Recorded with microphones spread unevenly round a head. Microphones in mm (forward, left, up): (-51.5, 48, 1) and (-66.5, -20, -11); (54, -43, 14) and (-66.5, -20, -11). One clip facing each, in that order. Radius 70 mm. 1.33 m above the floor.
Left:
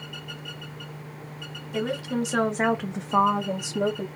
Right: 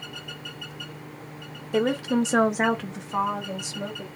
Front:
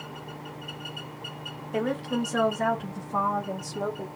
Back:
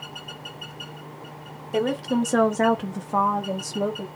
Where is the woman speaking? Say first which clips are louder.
Right 5 dB, back 5 dB; 135° right, 1.0 m; by 4.1 s 100° left, 1.4 m.